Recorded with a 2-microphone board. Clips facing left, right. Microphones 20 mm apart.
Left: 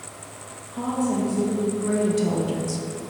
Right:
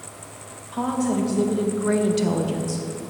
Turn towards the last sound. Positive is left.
turn(degrees=30)  # may be behind; listen again after turning